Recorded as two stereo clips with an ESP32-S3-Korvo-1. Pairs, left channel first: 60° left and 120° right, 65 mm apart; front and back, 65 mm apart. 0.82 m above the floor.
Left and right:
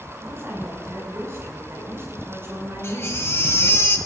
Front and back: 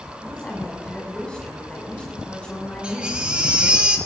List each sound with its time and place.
0.2 s a woman speaking: 75° right, 6.5 m
2.8 s a baby crying: 105° left, 1.9 m